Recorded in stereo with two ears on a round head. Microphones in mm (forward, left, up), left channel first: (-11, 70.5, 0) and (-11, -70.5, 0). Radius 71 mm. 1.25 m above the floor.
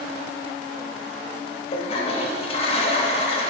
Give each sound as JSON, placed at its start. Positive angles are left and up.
{"t": 1.7, "sound": "a toilet flushing", "side_deg": 35, "distance_m": 0.8}